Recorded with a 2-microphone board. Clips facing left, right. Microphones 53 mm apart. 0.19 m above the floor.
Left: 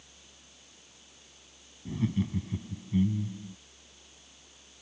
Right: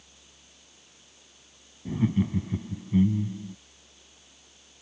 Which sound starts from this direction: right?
Laughter, at 1.9 s.